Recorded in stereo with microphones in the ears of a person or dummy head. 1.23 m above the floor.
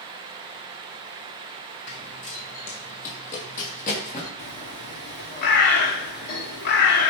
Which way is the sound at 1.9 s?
35° left (ahead or behind).